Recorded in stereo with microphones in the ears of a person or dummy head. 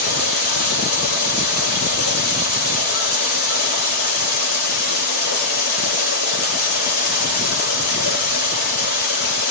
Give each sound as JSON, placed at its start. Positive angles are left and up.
{"t": 0.0, "sound": "running water", "side_deg": 50, "distance_m": 5.0}